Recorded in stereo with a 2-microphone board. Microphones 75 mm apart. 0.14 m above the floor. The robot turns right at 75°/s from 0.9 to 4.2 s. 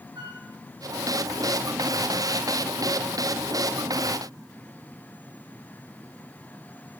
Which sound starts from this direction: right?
A flute, at 0.1 s.